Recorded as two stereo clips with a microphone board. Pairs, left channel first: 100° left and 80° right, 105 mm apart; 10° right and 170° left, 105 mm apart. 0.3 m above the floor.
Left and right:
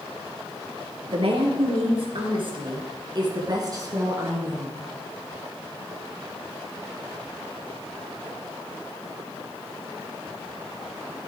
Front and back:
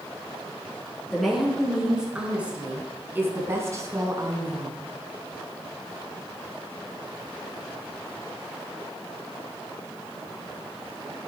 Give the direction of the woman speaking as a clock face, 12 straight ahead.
3 o'clock.